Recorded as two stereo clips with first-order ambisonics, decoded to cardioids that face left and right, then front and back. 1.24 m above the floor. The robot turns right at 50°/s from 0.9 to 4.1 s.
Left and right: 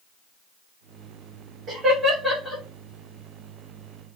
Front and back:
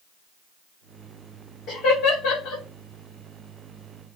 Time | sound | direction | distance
1.7 | laughter | 35° right | 1.1 m